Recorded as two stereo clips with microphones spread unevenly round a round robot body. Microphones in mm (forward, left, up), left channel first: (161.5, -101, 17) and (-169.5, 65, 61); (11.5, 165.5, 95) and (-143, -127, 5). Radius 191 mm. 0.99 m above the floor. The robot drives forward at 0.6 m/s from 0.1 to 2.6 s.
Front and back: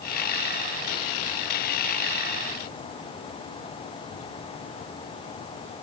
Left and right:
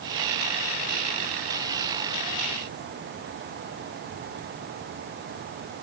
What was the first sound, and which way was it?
Only background noise.